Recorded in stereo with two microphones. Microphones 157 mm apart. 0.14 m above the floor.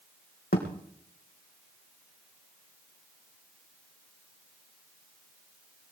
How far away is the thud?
About 3.5 m.